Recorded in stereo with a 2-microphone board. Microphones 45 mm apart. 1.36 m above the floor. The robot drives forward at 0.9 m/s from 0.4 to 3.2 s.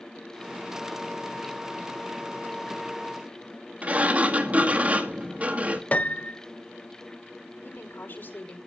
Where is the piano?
35° left (ahead or behind), 0.7 m.